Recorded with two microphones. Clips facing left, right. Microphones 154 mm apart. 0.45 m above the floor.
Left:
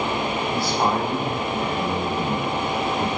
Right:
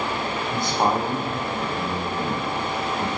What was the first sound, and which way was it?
A man speaking, 25° right (ahead or behind).